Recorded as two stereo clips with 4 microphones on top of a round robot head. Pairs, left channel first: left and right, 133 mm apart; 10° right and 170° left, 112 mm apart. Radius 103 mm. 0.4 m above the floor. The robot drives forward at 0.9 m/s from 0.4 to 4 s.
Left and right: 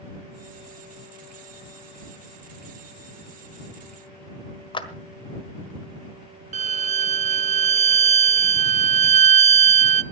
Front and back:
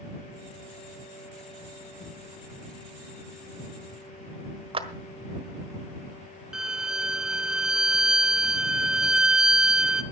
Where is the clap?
140° left, 1.5 m.